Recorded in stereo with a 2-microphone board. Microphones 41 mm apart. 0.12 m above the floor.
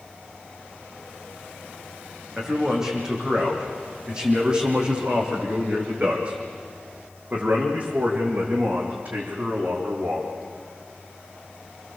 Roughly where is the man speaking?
Centre.